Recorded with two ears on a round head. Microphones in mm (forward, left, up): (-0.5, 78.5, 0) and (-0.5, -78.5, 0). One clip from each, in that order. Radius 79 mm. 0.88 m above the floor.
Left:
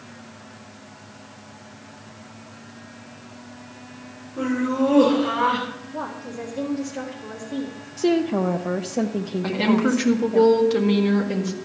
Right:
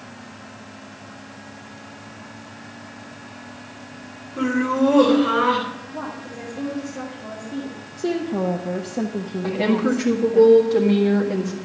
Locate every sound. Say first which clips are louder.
4.4 s laughter: right 2 dB; 40° right (ahead or behind), 3.5 m
5.9 s a woman speaking: left 1 dB; 40° left (ahead or behind), 2 m
8.0 s a woman speaking: left 3 dB; 55° left (ahead or behind), 0.6 m
9.4 s a woman speaking: right 1 dB; 35° left (ahead or behind), 1.7 m